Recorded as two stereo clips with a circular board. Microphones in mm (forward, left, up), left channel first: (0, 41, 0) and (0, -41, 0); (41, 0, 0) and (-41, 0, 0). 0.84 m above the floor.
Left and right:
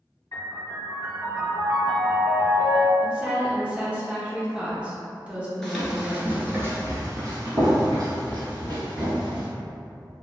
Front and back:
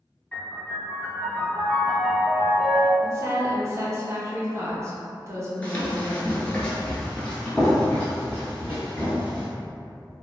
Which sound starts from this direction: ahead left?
A piano, at 0.3 s.